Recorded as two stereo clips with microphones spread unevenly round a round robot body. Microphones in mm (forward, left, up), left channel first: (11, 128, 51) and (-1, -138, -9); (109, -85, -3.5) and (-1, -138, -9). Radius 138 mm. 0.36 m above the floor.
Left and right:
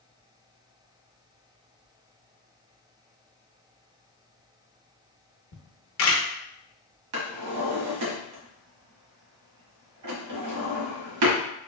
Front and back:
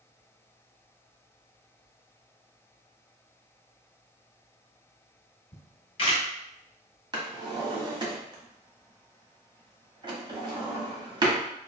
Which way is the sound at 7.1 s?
100° right.